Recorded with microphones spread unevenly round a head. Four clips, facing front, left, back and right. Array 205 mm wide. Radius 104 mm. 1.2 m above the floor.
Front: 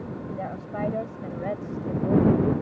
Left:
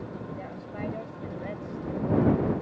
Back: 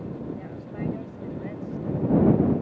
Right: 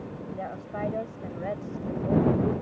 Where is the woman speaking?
25° right.